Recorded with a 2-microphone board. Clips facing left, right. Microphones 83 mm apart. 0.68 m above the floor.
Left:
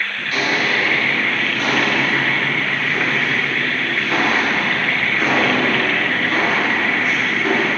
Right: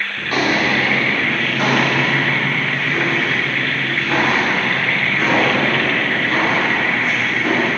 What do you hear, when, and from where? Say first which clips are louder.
0.2 s footsteps: right 4 dB; 65° right (ahead or behind), 2 m; by 7.7 s 25° right (ahead or behind), 9 m